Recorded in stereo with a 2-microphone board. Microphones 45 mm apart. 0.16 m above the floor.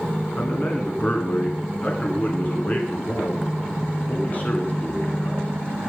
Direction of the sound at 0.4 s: 35° left (ahead or behind).